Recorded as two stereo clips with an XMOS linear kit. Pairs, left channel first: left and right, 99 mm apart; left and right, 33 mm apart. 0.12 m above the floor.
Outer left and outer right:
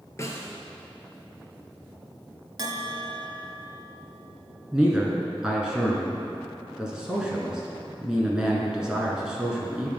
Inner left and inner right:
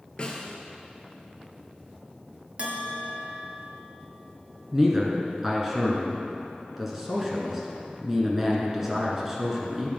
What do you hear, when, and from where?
0.2 s a snare drum: 30° left (ahead or behind), 0.9 m
2.6 s a bell: 40° right (ahead or behind), 0.6 m
4.7 s a man speaking: 10° right (ahead or behind), 1.2 m